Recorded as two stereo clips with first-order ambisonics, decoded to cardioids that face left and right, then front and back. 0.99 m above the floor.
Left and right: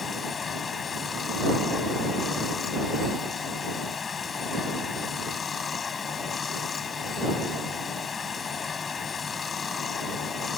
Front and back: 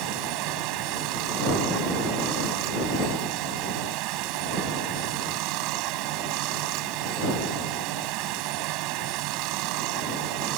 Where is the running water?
160° left.